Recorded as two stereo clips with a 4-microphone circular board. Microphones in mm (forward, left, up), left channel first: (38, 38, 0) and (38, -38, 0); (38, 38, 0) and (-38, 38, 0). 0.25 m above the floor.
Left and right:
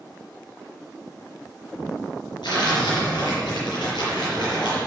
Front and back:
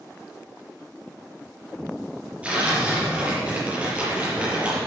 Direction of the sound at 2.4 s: 105° left.